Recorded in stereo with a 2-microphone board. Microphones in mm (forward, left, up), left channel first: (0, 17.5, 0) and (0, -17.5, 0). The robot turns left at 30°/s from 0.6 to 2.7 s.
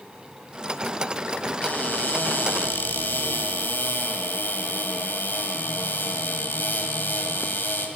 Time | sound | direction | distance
1.6 | a cupboard door | 130° left | 2.5 m